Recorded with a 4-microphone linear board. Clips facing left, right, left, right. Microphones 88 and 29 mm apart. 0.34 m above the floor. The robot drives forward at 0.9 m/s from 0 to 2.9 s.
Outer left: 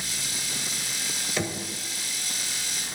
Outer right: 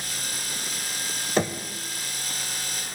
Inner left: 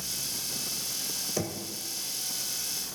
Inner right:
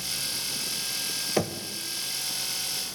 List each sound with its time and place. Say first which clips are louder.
1.4 s knocking: outer right 6 dB, inner right 6 dB; 40° right (ahead or behind), 0.8 m; by 1.6 s 35° right (ahead or behind), 0.9 m